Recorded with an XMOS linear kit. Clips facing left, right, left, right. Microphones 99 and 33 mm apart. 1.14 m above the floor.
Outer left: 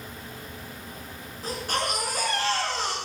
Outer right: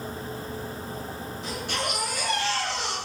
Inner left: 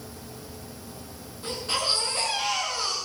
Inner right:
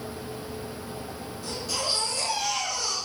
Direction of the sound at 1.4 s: 40° left (ahead or behind).